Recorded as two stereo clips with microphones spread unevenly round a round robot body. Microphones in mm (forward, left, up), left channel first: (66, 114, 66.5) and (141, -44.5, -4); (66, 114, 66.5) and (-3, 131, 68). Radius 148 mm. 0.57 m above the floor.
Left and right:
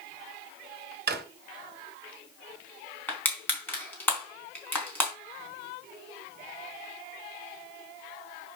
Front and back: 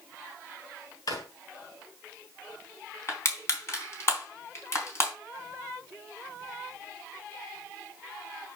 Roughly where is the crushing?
Ahead left.